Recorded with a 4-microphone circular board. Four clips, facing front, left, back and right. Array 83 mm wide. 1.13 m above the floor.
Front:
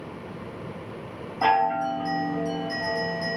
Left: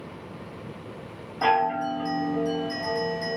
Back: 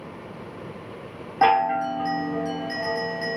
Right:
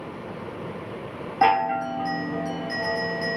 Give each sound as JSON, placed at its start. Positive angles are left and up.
{"t": 1.4, "sound": "a chime", "azimuth_deg": -140, "distance_m": 1.1}